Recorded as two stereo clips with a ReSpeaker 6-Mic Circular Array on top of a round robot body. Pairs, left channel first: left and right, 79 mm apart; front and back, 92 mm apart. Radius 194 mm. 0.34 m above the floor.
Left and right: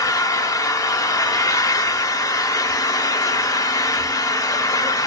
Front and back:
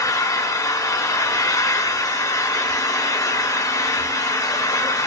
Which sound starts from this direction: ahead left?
An engine running, at 0.0 s.